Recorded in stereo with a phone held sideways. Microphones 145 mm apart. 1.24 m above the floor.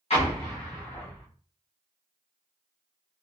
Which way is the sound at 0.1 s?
45° left (ahead or behind).